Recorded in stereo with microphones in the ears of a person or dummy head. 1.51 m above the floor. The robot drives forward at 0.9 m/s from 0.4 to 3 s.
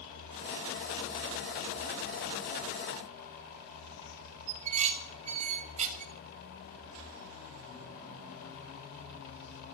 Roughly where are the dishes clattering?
Right.